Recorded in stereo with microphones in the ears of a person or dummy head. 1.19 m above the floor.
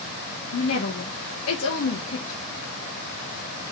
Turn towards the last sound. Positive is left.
turn(degrees=60)  # may be behind; listen again after turning